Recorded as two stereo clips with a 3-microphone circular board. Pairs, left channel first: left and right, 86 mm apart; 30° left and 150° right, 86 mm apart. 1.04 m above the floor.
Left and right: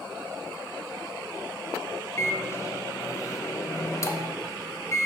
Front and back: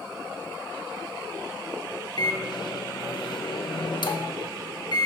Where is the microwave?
40° left, 0.8 m.